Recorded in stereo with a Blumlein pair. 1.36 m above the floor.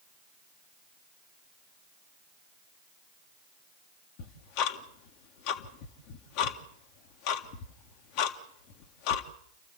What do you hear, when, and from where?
4.2 s ticking: 45° left, 1.8 m